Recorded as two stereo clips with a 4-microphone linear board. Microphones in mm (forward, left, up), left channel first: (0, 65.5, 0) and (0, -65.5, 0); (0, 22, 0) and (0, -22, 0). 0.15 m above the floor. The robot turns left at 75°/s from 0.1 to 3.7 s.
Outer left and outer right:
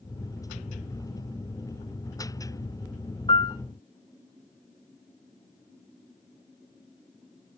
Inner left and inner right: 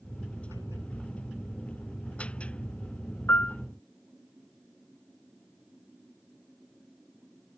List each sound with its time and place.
3.3 s a piano: 45° left (ahead or behind), 0.8 m